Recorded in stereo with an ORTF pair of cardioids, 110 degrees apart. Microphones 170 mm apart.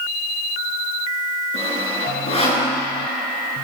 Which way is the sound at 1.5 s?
35° left.